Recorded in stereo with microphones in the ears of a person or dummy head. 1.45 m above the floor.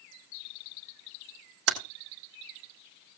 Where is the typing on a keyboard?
80° right, 1.8 m.